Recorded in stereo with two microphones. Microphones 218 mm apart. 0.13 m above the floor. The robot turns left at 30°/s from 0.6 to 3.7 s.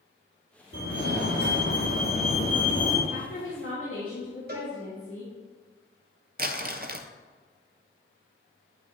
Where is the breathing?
No breathing in this recording.